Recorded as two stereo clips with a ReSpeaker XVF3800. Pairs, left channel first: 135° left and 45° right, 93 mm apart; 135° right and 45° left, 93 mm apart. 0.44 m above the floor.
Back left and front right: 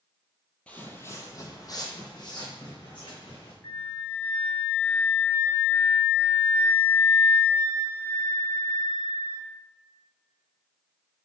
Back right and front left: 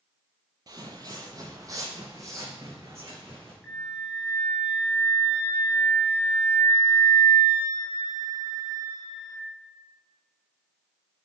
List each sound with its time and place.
0.7 s footsteps: 65° left, 0.6 m; by 3.5 s 105° left, 1.8 m
3.6 s a flute: 120° left, 1.0 m